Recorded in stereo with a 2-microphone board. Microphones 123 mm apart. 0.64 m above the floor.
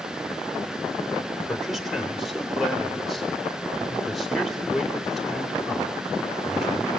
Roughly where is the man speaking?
Centre.